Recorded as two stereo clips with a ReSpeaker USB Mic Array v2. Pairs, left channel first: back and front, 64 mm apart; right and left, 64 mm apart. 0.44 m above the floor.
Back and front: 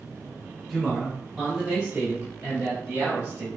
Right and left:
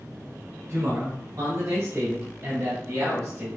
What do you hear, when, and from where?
0.7 s a man speaking: 90° left, 1.9 m; by 3.5 s 45° left, 3 m